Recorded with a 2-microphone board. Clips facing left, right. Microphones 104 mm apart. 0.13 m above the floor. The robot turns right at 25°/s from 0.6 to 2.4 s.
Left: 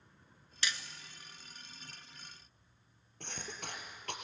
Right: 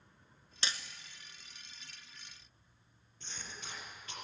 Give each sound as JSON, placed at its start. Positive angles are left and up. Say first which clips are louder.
{"t": 0.6, "sound": "hammering", "louder": "left 1 dB", "side_deg": -30, "distance_m": 0.8}
{"t": 3.2, "sound": "a cough", "louder": "left 4 dB", "side_deg": 55, "distance_m": 3.5}